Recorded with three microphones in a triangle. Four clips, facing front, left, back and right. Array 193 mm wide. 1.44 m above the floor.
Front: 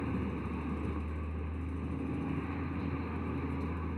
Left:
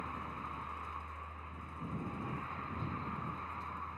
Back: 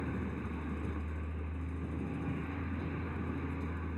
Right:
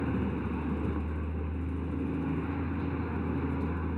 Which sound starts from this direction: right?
A vehicle, at 0.0 s.